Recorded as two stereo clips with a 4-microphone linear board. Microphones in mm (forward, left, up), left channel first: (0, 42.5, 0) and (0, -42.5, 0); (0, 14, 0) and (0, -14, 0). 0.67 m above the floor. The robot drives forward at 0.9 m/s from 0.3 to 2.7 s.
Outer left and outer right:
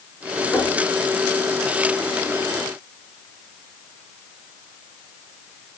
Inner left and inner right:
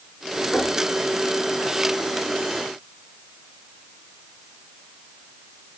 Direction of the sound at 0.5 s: 30° left (ahead or behind).